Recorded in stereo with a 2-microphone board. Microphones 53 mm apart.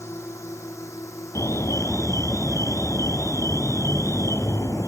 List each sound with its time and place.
0.0 s a drone: 55° left (ahead or behind); by 4.9 s 80° left
1.4 s an alarm: 60° left (ahead or behind)